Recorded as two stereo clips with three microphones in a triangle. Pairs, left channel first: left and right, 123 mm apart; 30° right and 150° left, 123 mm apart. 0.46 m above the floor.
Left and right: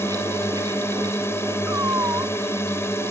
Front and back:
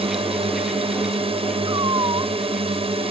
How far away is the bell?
I don't hear a bell.